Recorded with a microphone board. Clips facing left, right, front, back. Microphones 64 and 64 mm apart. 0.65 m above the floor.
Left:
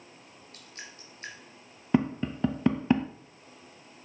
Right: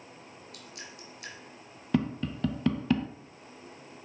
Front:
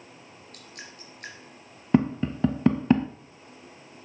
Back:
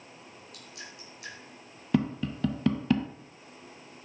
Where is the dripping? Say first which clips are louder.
Left 1 dB, front 2 dB; 40° left, 3.5 m.